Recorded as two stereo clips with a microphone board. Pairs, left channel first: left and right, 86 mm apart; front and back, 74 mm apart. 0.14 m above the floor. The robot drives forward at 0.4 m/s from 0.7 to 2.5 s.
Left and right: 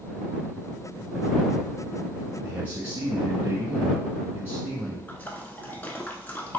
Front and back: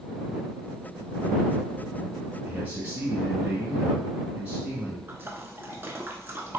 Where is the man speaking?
135° right, 1.4 m.